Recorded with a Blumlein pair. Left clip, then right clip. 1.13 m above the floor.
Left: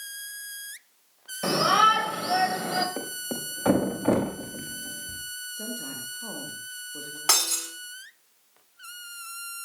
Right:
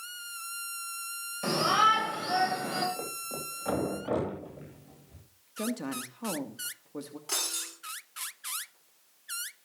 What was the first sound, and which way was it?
A shout, 15° left.